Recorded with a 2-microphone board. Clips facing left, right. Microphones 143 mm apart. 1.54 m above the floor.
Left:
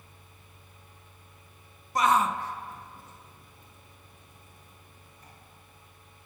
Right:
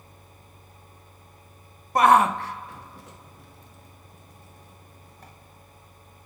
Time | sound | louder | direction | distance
1.9 | a shout | right 7 dB | 55° right (ahead or behind) | 0.5 m